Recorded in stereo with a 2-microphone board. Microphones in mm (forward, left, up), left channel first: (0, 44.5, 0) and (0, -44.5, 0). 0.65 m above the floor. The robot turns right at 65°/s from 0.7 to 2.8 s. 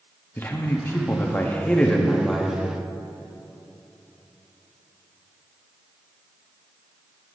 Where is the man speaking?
25° left (ahead or behind), 1.0 m; by 2.6 s 5° right (ahead or behind), 1.0 m.